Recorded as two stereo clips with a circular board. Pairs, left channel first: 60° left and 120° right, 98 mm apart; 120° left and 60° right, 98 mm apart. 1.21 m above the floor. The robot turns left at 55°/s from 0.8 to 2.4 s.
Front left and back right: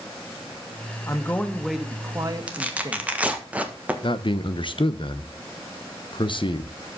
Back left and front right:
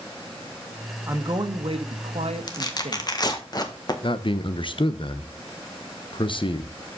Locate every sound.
1.1 s a man speaking: straight ahead, 1.5 m; by 3.1 s 70° right, 1.5 m
2.5 s tearing paper: 165° left, 1.5 m
4.0 s a man speaking: 90° left, 0.9 m